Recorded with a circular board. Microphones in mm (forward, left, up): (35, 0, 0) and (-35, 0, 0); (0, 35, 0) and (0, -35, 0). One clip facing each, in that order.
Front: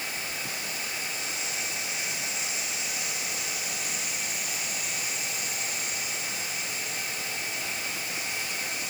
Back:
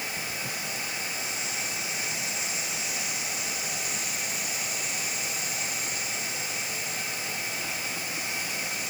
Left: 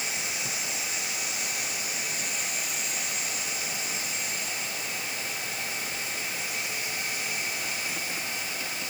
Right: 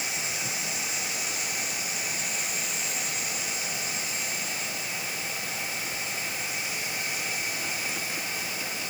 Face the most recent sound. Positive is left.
No sound to turn to.